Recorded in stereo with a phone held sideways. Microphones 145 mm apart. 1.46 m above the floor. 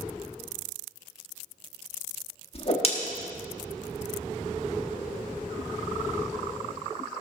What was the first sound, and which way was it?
A whoosh, 45° left (ahead or behind).